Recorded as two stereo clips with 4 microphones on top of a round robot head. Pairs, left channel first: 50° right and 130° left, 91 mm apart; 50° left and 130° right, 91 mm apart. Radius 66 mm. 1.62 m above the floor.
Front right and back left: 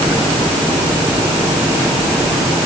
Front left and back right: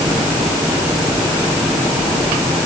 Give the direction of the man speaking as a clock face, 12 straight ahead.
I don't hear a man speaking.